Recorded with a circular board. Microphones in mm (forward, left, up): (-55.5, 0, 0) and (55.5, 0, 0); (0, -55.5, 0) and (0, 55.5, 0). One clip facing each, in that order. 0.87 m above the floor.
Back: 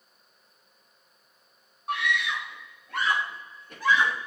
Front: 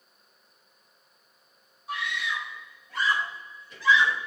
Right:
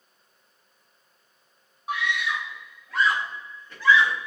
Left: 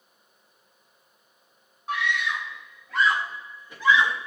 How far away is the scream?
About 3 m.